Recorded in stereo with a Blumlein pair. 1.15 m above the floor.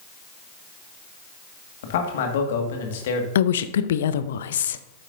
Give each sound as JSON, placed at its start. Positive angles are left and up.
{"t": 1.8, "sound": "a man speaking", "azimuth_deg": 55, "distance_m": 1.9}
{"t": 3.4, "sound": "a woman speaking", "azimuth_deg": 60, "distance_m": 0.6}